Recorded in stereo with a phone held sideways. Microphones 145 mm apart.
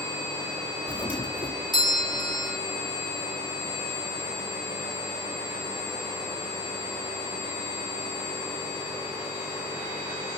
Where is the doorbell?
30° left (ahead or behind).